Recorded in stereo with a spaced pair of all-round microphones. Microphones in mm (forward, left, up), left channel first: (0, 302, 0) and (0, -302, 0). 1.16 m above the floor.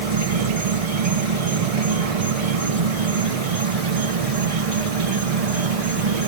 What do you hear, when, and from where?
0.0 s an insect: 70° right (ahead or behind), 0.8 m